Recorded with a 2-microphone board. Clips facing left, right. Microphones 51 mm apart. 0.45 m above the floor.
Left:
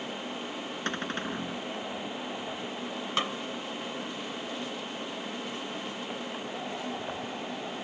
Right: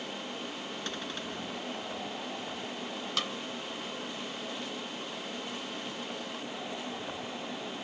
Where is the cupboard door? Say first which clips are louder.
Left 8 dB; 45° left (ahead or behind).